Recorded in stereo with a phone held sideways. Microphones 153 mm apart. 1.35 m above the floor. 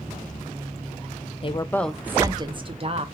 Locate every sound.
1.4 s a woman speaking: 40° left (ahead or behind), 0.5 m; by 3.0 s 45° right (ahead or behind), 1.1 m